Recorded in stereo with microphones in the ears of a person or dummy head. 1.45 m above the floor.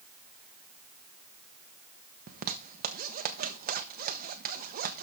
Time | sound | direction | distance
2.3 | a zipper | 45° right (ahead or behind) | 1.0 m